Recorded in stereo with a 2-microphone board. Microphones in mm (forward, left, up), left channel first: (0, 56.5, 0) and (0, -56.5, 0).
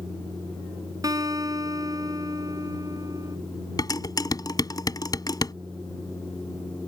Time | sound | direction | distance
1.0 | a guitar | 35° right (ahead or behind) | ?
3.8 | dishes clattering | 35° left (ahead or behind) | ?